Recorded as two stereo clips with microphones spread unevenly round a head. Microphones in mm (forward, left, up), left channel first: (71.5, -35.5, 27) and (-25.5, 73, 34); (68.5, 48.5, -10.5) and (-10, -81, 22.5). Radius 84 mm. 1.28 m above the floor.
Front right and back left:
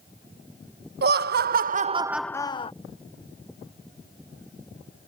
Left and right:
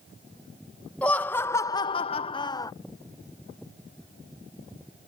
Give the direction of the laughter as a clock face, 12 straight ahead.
7 o'clock.